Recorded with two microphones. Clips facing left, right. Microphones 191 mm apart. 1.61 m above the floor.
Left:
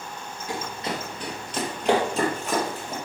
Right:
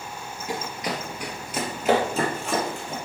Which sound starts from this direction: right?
Running footsteps, at 0.5 s.